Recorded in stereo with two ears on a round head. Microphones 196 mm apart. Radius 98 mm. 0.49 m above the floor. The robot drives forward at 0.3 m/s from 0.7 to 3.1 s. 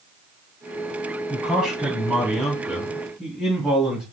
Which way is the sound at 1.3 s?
5° right (ahead or behind).